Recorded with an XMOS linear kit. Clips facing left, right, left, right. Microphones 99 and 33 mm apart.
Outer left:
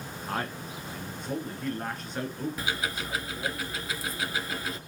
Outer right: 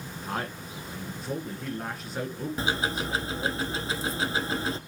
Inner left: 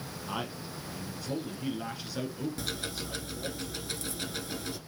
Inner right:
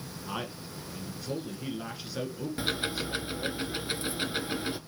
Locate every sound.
0.3 s a man speaking: 5° right (ahead or behind), 1.7 m
2.6 s ticking: 30° right (ahead or behind), 0.7 m